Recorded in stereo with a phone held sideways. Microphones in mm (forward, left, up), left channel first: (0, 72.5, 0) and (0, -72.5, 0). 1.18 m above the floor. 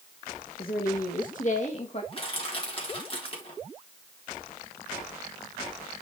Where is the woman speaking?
75° left (ahead or behind), 1.6 m; by 2.0 s 40° left (ahead or behind), 1.8 m.